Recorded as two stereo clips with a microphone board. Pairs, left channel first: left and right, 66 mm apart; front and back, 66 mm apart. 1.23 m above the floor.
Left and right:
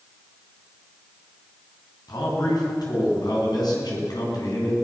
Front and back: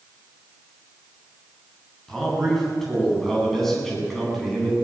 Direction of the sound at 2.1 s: 85° left.